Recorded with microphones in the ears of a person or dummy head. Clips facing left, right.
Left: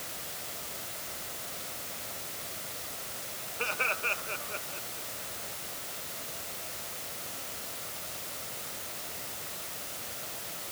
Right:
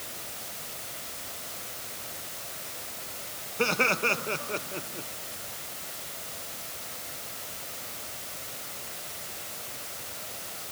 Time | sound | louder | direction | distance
3.6 | laughter | right 10 dB | 60° right (ahead or behind) | ?